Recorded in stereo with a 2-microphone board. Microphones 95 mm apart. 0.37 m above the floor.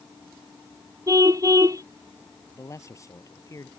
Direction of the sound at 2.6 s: 35° left (ahead or behind).